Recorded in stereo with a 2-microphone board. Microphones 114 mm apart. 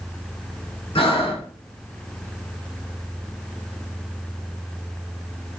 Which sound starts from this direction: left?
Breathing, at 0.9 s.